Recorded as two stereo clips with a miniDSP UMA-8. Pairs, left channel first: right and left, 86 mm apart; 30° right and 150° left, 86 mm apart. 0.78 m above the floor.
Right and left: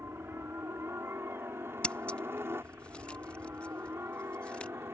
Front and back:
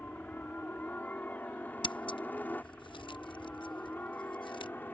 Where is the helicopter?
35° left.